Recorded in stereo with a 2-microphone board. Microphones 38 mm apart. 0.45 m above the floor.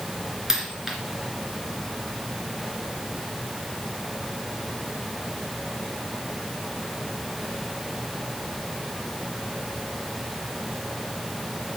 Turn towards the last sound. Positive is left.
turn(degrees=-10)  # may be behind; listen again after turning